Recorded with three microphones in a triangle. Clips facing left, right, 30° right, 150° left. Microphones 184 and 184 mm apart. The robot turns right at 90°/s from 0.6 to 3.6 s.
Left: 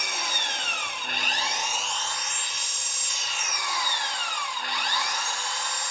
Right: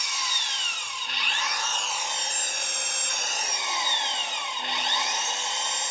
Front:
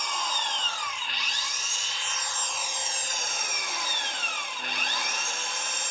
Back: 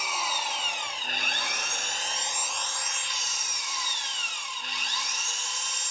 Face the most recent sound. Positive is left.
turn(degrees=-25)